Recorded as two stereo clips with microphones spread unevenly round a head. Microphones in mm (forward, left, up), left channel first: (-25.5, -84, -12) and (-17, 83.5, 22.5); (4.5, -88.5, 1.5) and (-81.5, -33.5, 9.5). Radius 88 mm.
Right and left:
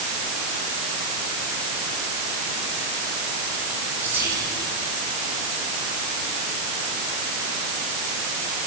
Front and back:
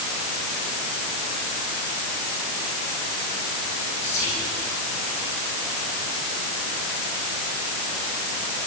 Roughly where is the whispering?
Ahead.